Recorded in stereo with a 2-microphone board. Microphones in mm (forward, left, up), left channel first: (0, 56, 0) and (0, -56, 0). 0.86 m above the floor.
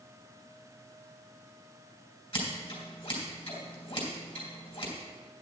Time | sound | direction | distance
2.3 | scissors | 55° left (ahead or behind) | 3.5 m